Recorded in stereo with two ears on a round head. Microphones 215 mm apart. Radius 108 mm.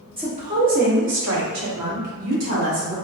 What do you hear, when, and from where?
0.2 s a woman speaking: 20° right (ahead or behind), 1.0 m; by 3.0 s 65° right (ahead or behind), 1.4 m